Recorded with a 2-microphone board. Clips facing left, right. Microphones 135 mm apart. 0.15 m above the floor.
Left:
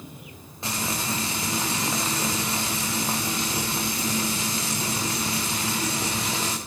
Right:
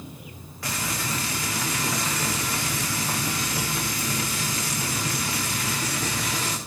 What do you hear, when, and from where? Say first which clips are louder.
0.6 s frying: left 1 dB; 25° left (ahead or behind), 4.5 m